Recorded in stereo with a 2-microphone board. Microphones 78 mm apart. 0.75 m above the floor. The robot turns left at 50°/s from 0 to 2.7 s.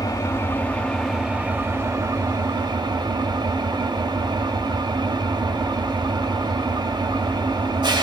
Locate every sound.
0.0 s an engine running: 55° left, 0.9 m; by 8.0 s 80° right, 0.9 m